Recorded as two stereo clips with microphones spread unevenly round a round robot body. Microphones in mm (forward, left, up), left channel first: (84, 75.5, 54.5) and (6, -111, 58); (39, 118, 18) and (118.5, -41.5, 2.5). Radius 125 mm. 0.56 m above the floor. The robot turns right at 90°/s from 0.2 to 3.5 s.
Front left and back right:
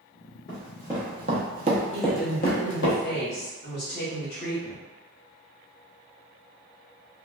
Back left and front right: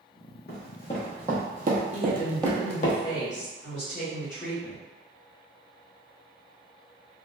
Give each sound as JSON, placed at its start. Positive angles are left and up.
{"t": 0.5, "sound": "running footsteps", "azimuth_deg": 120, "distance_m": 1.1}
{"t": 1.9, "sound": "a woman speaking", "azimuth_deg": -55, "distance_m": 1.2}